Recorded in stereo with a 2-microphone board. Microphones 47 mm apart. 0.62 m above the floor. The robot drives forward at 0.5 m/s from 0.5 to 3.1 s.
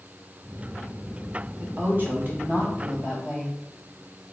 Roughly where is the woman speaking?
Right.